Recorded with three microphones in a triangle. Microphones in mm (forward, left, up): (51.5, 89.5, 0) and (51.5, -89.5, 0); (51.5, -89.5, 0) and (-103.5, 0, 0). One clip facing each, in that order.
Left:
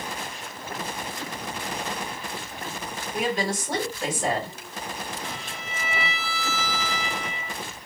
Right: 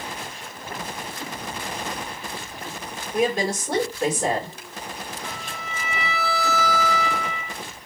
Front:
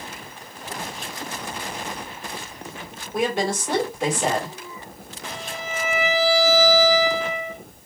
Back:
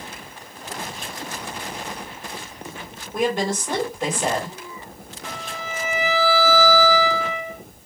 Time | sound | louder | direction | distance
3.1 | a woman speaking | right 4 dB, back 1 dB | 115° right | 3 m
5.2 | a violin | right 1 dB, even | 145° left | 1.1 m